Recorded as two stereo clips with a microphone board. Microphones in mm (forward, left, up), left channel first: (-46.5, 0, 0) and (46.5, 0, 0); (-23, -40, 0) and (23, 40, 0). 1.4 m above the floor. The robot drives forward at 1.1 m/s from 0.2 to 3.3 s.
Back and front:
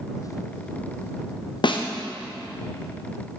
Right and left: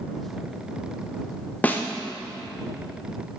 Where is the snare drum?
170° left, 0.5 m; by 1.9 s 175° left, 0.8 m.